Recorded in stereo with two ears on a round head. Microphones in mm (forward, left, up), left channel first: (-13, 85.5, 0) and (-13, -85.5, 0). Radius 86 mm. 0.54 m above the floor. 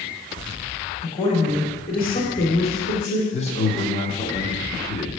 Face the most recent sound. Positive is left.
turn(degrees=35)  # may be behind; listen again after turning